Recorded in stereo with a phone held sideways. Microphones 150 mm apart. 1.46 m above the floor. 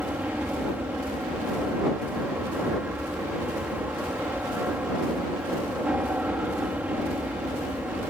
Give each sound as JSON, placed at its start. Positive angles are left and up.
{"t": 0.0, "sound": "an aircraft", "side_deg": -10}